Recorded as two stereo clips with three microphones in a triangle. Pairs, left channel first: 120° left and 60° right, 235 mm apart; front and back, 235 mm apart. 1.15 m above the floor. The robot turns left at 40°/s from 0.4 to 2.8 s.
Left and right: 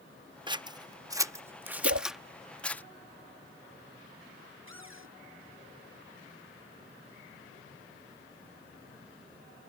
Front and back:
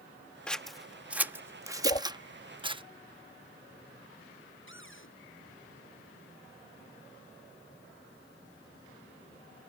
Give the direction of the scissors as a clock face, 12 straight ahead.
3 o'clock.